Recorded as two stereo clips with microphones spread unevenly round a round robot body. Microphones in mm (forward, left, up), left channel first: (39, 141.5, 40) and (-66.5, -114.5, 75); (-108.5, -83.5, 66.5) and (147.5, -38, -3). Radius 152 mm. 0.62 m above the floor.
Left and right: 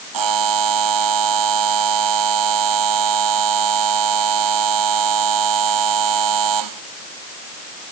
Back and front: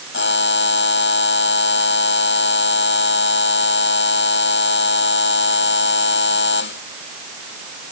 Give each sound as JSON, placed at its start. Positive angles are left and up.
{"t": 0.1, "sound": "a buzzer", "azimuth_deg": -125}